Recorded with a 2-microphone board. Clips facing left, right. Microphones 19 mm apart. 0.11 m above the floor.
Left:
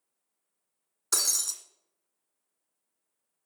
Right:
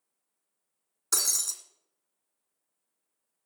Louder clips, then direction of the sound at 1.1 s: Even; 10° left (ahead or behind).